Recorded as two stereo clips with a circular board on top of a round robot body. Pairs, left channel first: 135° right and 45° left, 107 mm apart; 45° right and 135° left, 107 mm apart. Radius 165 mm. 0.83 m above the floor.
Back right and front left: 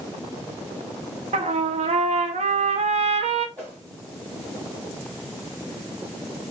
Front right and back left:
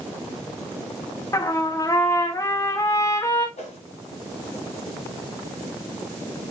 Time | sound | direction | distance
1.3 | a trumpet | 20° left | 0.7 m
3.6 | a whoosh | 30° right | 2 m